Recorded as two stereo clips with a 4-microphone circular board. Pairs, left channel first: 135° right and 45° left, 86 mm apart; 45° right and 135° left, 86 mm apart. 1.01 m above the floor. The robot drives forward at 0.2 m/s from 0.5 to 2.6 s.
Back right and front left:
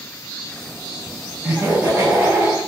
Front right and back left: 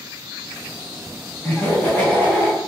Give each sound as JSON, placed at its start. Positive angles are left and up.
{"t": 1.4, "sound": "laughter", "azimuth_deg": 5, "distance_m": 1.0}